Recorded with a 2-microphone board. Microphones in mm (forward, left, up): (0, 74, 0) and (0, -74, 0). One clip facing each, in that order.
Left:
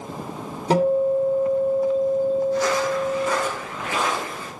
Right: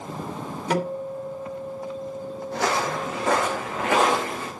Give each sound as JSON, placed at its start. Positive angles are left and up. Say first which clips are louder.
{"t": 0.7, "sound": "a guitar", "louder": "left 9 dB", "side_deg": 30, "distance_m": 3.0}
{"t": 2.5, "sound": "footsteps", "louder": "left 4 dB", "side_deg": -65, "distance_m": 2.5}